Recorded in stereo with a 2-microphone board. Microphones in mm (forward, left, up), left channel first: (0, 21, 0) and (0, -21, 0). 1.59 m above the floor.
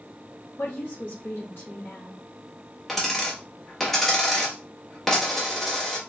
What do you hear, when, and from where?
0.6 s a woman speaking: 55° left (ahead or behind), 0.9 m
2.9 s a dropped coin: 10° left (ahead or behind), 1.0 m